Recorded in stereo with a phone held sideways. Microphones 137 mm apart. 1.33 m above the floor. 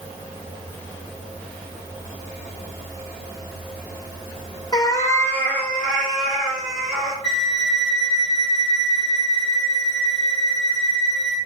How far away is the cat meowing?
About 0.6 m.